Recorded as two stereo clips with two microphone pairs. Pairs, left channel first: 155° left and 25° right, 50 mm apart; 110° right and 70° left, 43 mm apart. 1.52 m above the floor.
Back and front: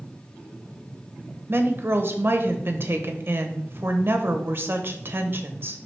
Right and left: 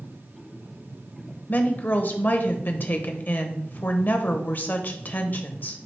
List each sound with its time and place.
1.5 s a woman speaking: 65° right, 0.9 m